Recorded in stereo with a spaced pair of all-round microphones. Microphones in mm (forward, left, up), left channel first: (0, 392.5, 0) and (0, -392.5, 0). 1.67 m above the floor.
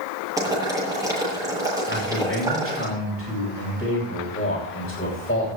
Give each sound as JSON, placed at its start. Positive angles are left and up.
{"t": 0.4, "sound": "boiling", "side_deg": -5, "distance_m": 9.0}
{"t": 1.9, "sound": "a man speaking", "side_deg": 15, "distance_m": 8.0}